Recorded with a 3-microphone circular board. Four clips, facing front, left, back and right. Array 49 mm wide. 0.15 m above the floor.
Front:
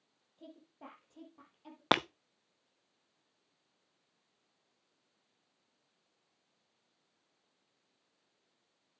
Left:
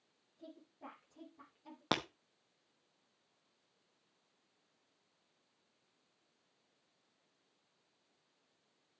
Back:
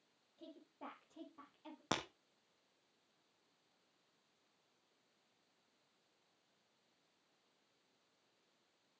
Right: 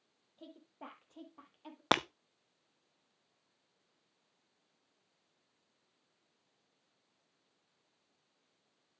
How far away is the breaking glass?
About 0.6 m.